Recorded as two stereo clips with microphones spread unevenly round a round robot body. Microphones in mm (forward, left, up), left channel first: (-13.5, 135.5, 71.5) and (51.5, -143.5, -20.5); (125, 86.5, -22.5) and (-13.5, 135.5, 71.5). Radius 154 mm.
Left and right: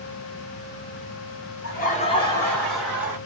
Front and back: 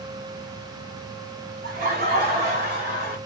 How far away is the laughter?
About 0.9 m.